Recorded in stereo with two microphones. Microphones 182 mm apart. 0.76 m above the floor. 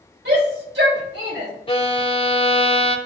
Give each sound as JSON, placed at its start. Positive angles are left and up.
{"t": 0.2, "sound": "a shout", "side_deg": -80, "distance_m": 4.0}
{"t": 1.7, "sound": "a violin", "side_deg": 30, "distance_m": 0.7}